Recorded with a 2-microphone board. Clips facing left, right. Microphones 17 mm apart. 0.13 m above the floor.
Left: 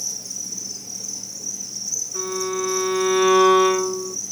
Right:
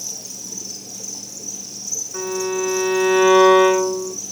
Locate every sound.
0.0 s an insect: 60° right (ahead or behind), 1.8 m
2.1 s a violin: 75° right (ahead or behind), 4 m